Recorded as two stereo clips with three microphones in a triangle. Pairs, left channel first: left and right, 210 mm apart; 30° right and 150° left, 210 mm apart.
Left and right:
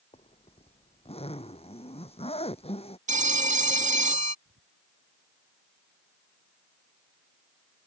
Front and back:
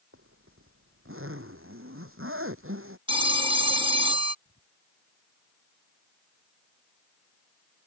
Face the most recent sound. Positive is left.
turn(degrees=-75)